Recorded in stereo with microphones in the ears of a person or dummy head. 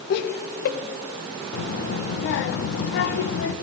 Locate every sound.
0.1 s laughter: 60° left (ahead or behind), 1.3 m
1.5 s a child speaking: 50° left (ahead or behind), 0.9 m